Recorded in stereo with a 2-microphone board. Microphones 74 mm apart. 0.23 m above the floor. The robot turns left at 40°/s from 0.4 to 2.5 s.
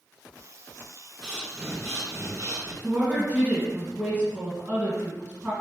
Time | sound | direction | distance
1.2 | breathing | 5° right | 1.4 m
2.8 | a woman speaking | 30° right (ahead or behind) | 1.6 m